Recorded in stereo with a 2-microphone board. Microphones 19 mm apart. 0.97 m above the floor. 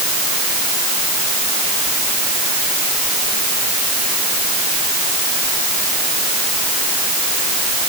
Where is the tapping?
No tapping in this recording.